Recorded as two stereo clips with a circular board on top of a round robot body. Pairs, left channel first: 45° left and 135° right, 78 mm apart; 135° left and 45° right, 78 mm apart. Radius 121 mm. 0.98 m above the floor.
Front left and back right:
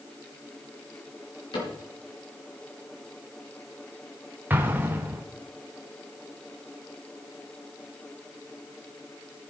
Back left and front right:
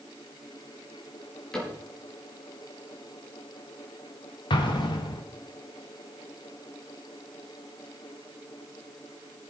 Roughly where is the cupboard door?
Ahead left.